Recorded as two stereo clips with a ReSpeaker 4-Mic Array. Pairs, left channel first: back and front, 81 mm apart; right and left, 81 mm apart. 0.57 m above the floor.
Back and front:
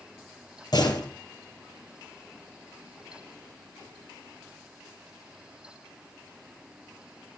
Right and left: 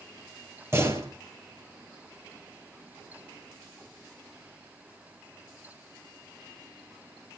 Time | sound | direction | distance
0.7 | a door slam | 150° left | 8 m